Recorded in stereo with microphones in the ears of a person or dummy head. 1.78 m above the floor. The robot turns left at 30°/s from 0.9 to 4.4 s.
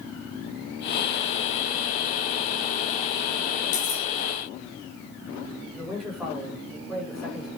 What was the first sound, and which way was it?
Cutlery clinking, 70° left (ahead or behind).